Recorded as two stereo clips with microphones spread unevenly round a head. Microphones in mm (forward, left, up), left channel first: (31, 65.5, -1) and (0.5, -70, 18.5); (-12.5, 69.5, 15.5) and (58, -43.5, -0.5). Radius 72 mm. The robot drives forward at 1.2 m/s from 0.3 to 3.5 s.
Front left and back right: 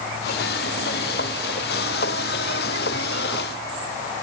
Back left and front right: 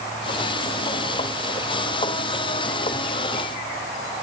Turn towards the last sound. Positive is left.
No sound to turn to.